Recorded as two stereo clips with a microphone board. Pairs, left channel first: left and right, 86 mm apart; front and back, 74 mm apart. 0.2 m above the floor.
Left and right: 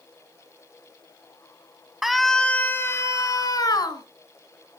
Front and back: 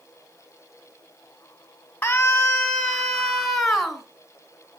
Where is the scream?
10° right, 1.5 m; by 4.0 s 95° left, 2.5 m.